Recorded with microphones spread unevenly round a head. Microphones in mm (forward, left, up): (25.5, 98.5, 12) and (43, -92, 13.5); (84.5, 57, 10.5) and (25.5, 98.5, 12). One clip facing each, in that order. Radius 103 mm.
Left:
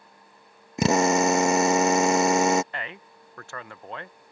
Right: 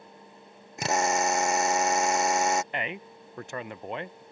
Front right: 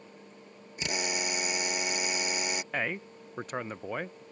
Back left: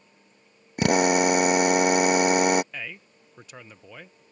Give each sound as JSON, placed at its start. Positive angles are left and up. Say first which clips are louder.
{"t": 0.8, "sound": "a drill", "louder": "left 7 dB, back left 14 dB", "azimuth_deg": 115}
{"t": 2.7, "sound": "a man speaking", "louder": "right 4 dB, front right 6 dB", "azimuth_deg": -15}